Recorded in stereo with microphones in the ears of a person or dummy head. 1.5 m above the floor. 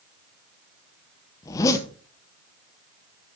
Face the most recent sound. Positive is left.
turn(degrees=15)  # may be behind; listen again after turning